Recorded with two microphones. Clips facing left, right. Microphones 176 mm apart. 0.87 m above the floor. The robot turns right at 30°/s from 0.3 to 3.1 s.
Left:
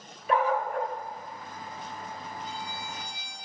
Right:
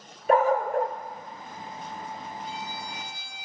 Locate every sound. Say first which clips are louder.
0.3 s a dog barking: right 5 dB; 45° right (ahead or behind), 0.7 m
2.4 s a violin: right 1 dB; centre (ahead or behind), 4.5 m; by 3.5 s 20° right (ahead or behind), 4.5 m